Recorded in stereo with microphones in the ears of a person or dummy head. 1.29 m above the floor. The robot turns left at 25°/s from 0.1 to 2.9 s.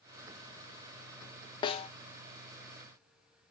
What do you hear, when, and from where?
1.6 s a snare drum: 30° left (ahead or behind), 0.6 m; by 1.9 s 35° left (ahead or behind), 0.6 m